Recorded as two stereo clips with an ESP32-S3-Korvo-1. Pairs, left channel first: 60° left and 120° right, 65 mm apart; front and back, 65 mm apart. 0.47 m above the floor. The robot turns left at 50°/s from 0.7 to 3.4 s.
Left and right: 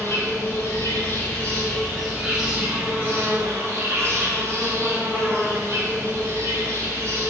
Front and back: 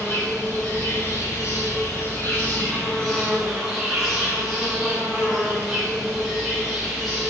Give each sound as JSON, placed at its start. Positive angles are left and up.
{"t": 0.0, "sound": "an insect", "azimuth_deg": 40, "distance_m": 3.0}